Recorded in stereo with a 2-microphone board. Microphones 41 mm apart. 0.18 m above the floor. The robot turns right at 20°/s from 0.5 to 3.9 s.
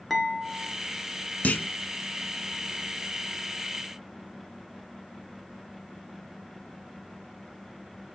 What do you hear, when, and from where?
0.1 s dishes clattering: 5° left (ahead or behind), 2 m; by 0.7 s centre (ahead or behind), 2 m
1.4 s a clunk: 40° left (ahead or behind), 0.9 m